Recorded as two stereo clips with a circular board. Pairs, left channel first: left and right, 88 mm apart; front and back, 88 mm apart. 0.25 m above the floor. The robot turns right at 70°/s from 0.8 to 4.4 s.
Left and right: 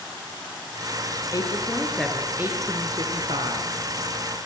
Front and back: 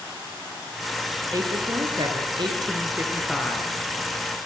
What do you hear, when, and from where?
1.3 s a woman speaking: 125° left, 5 m; by 3.7 s 65° right, 5 m